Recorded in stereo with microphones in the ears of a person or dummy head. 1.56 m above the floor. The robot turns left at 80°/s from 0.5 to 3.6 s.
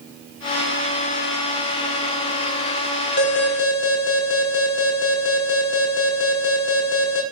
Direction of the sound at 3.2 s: 115° left.